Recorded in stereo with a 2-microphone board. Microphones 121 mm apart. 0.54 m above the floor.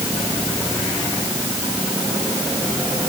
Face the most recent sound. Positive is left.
No sound to turn to.